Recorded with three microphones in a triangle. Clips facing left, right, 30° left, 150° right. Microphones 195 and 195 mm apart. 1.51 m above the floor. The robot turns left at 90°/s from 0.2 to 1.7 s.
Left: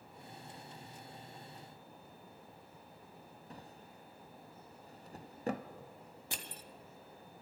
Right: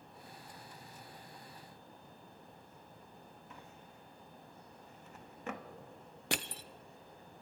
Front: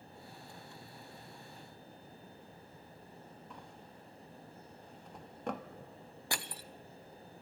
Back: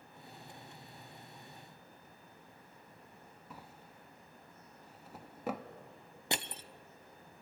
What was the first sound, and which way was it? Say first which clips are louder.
A drawer: left 2 dB, front 2 dB; 130° left.